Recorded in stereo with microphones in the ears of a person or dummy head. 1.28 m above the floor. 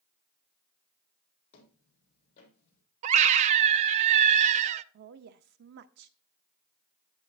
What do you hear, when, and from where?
1.5 s footsteps: 40° left (ahead or behind), 3.5 m; by 2.8 s 45° left (ahead or behind), 3 m
3.0 s a scream: 40° right (ahead or behind), 0.6 m
4.9 s a woman speaking: 60° right (ahead or behind), 0.6 m